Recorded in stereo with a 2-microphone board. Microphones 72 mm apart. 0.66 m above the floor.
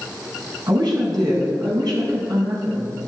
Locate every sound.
0.7 s a woman speaking: 70° right (ahead or behind), 4.5 m